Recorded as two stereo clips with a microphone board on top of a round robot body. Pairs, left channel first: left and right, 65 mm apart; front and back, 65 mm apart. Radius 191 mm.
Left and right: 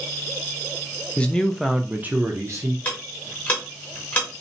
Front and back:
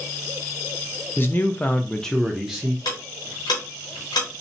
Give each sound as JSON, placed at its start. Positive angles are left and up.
{"t": 1.2, "sound": "a man speaking", "azimuth_deg": 30, "distance_m": 0.8}
{"t": 2.9, "sound": "ticking", "azimuth_deg": 25, "distance_m": 0.7}